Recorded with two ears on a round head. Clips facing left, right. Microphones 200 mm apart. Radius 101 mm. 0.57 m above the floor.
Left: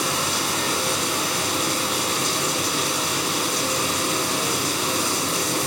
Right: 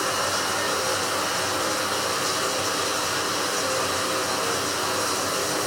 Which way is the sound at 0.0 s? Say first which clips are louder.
Left 1 dB; 45° left (ahead or behind).